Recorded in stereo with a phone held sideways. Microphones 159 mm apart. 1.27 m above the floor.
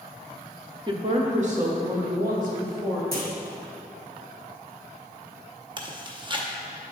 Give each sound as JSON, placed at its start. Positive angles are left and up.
{"t": 0.9, "sound": "a woman speaking", "side_deg": -30, "distance_m": 0.6}
{"t": 3.1, "sound": "a clunk", "side_deg": -75, "distance_m": 1.1}
{"t": 5.8, "sound": "chewing", "side_deg": -30, "distance_m": 0.7}